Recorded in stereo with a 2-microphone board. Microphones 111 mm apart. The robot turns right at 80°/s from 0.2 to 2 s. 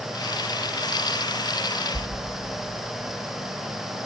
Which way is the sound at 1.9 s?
15° left (ahead or behind).